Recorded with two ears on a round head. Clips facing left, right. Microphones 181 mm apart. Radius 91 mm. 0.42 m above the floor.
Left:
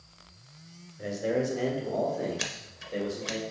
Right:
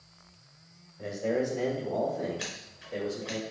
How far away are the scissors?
About 0.8 m.